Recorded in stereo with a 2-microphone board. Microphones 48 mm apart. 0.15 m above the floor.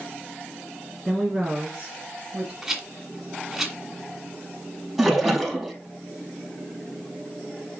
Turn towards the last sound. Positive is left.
turn(degrees=-5)  # may be behind; listen again after turning